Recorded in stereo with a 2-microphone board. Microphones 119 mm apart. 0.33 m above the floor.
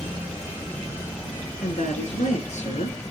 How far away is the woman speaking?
About 5.5 m.